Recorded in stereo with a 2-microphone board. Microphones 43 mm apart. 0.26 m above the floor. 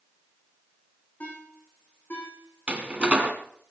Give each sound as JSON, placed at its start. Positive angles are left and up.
{"t": 1.2, "sound": "a ringtone", "side_deg": 40, "distance_m": 7.0}
{"t": 2.7, "sound": "a door slam", "side_deg": -30, "distance_m": 2.0}